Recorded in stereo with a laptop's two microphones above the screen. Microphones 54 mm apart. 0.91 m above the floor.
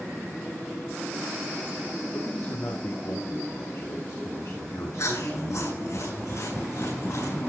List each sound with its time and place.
2.1 s a man speaking: 50° left (ahead or behind), 2 m; by 6.0 s 75° left (ahead or behind), 5.5 m
5.0 s chewing: 80° left, 9 m